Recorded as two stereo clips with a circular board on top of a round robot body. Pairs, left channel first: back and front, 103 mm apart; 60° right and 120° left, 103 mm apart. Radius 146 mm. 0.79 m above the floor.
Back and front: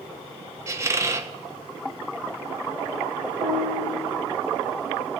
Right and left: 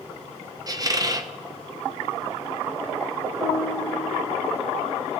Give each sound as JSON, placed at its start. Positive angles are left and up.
{"t": 0.7, "sound": "a squeak", "azimuth_deg": 65, "distance_m": 0.9}
{"t": 3.4, "sound": "a piano", "azimuth_deg": 40, "distance_m": 2.0}